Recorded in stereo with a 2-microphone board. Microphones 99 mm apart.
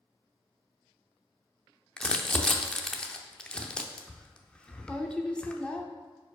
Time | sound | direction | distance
2.0 | crumpling | 10° left (ahead or behind) | 0.6 m